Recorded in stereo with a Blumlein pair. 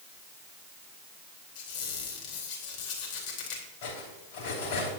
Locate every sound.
1.6 s a squeak: 50° left, 3 m
3.8 s cutlery clinking: 55° left, 3 m